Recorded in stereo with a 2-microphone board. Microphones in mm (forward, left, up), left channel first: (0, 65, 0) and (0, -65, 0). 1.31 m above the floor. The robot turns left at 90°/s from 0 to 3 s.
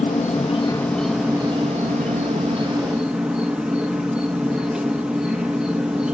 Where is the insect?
100° left, 1.1 m; by 6.1 s 170° right, 1.1 m.